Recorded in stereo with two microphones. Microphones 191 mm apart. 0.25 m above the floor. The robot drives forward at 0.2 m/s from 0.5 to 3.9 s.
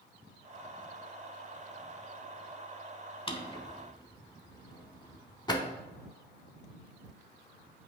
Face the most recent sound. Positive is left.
turn(degrees=25)  # may be behind; listen again after turning